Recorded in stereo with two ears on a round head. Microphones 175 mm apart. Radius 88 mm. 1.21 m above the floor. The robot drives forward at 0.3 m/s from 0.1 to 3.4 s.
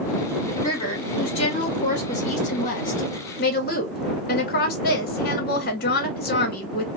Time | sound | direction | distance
0.6 | a woman speaking | 25° left (ahead or behind) | 1.5 m